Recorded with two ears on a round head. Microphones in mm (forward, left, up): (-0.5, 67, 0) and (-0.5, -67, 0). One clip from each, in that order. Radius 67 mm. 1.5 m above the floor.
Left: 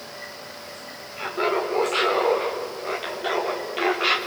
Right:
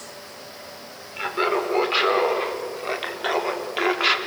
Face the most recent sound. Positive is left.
turn(degrees=-30)  # may be behind; listen again after turning